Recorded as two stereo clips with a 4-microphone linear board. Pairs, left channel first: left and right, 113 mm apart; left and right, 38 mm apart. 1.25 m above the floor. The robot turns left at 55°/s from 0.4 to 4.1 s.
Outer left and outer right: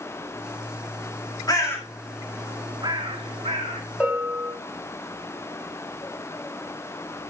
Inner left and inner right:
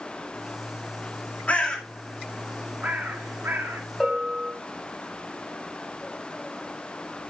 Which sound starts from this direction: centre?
A bell, at 4.0 s.